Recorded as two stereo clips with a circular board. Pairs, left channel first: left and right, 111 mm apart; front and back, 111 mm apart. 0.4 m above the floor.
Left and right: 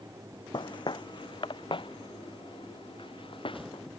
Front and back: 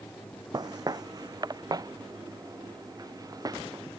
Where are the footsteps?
130° left; by 3.9 s 125° left.